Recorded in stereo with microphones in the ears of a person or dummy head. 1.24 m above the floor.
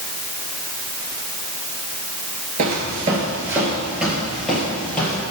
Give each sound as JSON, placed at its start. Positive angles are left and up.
{"t": 2.6, "sound": "footsteps", "side_deg": -30, "distance_m": 1.3}